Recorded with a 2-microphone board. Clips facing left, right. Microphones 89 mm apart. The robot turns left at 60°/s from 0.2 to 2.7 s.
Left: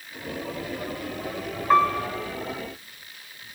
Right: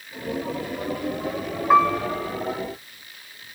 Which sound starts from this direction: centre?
A piano, at 1.7 s.